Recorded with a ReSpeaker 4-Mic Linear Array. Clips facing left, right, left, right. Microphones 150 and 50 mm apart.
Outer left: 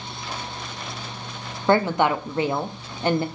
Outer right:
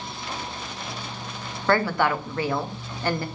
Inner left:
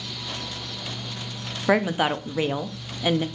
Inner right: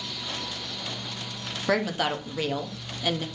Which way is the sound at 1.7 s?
20° left (ahead or behind).